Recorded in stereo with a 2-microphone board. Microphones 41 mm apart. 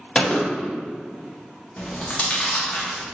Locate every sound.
0.1 s a gunshot: 25° left (ahead or behind), 0.7 m
1.8 s chewing: 35° left (ahead or behind), 0.7 m